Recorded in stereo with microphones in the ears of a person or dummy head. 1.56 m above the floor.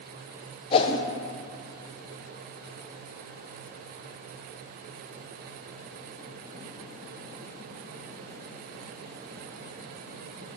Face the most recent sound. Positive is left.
turn(degrees=30)  # may be behind; listen again after turning